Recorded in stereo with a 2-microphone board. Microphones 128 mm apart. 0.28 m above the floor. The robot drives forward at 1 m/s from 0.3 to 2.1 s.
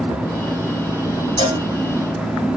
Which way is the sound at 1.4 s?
35° right (ahead or behind).